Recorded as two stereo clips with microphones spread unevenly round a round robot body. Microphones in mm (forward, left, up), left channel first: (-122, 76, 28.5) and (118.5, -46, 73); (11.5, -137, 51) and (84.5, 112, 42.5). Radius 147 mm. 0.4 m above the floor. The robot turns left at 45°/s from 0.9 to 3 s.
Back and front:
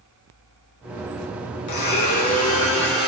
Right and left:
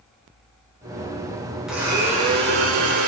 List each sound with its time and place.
1.7 s a blender: 160° left, 5 m; by 3.1 s 100° left, 5 m